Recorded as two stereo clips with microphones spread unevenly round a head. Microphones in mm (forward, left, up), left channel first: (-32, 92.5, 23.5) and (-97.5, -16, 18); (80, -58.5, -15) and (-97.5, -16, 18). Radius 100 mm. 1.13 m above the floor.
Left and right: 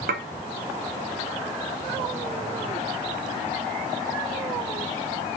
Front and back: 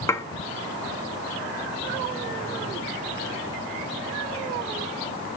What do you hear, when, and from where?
0.1 s dishes clattering: 90° right, 1.0 m